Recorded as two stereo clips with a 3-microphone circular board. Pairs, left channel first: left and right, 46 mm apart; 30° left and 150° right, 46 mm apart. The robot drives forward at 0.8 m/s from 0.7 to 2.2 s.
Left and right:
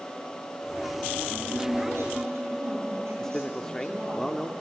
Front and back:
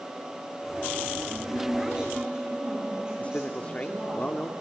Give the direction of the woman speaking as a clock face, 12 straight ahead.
3 o'clock.